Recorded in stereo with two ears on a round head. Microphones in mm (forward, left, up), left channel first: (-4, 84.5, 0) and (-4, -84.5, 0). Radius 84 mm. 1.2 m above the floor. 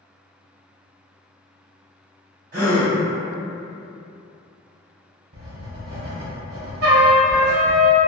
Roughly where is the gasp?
Right.